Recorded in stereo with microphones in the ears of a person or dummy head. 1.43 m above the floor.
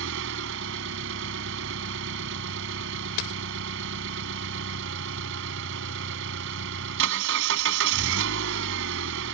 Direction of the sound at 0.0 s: 70° right (ahead or behind).